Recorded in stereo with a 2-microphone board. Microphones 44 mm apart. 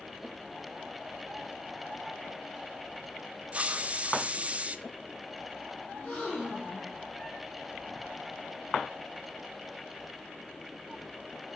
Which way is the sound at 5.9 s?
25° left (ahead or behind).